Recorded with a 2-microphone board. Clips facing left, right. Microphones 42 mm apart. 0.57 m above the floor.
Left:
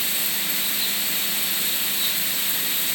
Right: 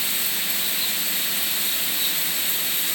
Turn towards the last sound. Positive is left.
No sound to turn to.